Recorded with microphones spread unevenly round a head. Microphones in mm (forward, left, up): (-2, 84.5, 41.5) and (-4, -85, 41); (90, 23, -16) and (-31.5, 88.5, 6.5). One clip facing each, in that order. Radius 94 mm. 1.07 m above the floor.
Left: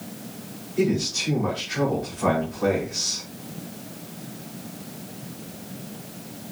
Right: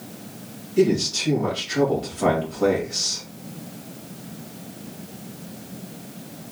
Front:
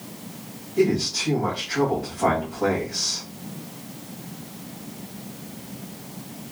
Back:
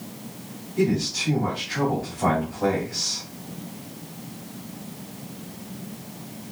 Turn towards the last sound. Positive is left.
turn(degrees=-105)